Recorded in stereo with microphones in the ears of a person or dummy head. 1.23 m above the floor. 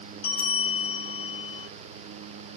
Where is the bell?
55° left (ahead or behind), 1.5 m.